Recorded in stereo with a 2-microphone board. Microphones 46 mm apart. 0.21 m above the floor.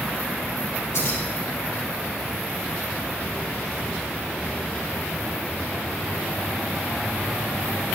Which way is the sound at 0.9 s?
75° left (ahead or behind).